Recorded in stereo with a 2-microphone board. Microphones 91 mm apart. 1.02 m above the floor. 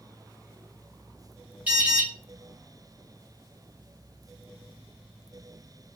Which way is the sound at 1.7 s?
20° right (ahead or behind).